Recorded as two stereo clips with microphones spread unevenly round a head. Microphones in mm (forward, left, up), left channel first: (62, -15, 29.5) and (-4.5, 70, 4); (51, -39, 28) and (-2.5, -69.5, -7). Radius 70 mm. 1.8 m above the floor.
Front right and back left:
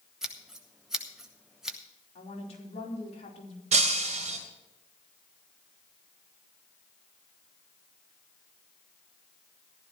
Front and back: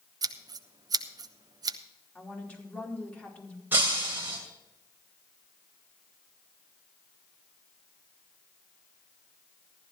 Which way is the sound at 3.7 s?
115° left.